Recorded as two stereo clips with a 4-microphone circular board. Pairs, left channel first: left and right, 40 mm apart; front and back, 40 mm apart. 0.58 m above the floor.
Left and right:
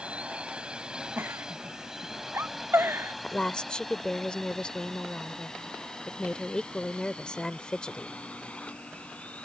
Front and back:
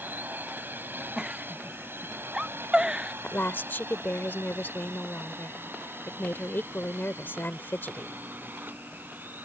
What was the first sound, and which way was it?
A drone, 150° right.